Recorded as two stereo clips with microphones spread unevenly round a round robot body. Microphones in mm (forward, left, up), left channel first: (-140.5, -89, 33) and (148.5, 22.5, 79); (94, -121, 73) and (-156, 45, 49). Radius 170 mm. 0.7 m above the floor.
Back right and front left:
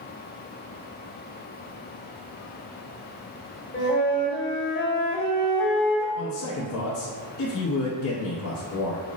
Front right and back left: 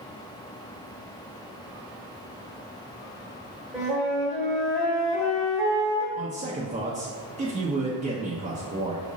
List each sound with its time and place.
3.7 s a flute: 130° right, 1.6 m
6.2 s a man speaking: 155° right, 0.7 m